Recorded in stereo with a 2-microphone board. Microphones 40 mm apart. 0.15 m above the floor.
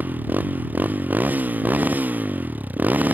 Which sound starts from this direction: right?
A motorcycle, at 0.0 s.